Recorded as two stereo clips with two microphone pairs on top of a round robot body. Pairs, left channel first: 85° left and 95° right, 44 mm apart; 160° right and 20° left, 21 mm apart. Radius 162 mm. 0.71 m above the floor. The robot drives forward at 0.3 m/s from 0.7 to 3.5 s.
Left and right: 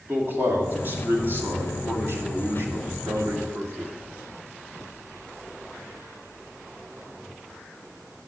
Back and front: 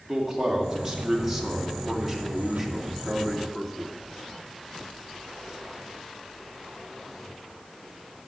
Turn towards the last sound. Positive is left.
turn(degrees=-75)